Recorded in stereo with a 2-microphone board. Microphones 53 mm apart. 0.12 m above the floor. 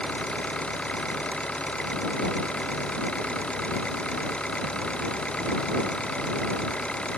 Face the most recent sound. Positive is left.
turn(degrees=20)  # may be behind; listen again after turning